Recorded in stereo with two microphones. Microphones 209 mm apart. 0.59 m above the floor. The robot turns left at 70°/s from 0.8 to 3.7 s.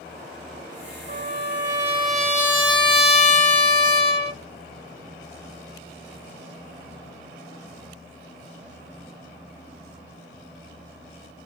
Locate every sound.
1.1 s a trumpet: 25° right (ahead or behind), 1.3 m; by 4.4 s 25° left (ahead or behind), 1.3 m